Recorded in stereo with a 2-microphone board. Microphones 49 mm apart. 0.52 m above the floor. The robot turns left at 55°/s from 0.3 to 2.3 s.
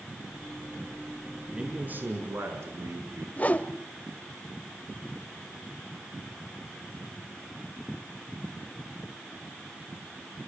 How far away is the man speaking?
About 6 m.